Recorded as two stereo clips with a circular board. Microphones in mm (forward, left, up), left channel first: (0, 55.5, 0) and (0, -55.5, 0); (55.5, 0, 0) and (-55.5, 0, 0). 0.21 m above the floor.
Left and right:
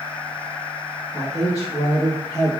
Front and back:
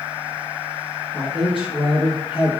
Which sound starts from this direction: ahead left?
A man speaking, at 1.1 s.